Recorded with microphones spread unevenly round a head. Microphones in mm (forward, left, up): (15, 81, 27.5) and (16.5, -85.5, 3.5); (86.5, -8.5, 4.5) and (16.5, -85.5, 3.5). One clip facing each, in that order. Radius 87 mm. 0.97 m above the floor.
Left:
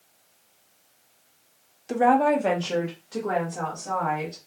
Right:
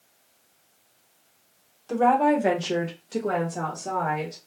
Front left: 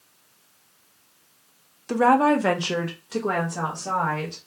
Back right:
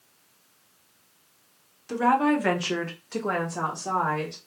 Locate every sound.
1.9 s a woman speaking: 15° left, 0.6 m; by 4.4 s 55° right, 1.5 m